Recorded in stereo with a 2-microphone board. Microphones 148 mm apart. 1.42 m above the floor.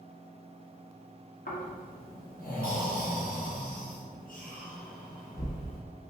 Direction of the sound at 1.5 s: 65° left (ahead or behind).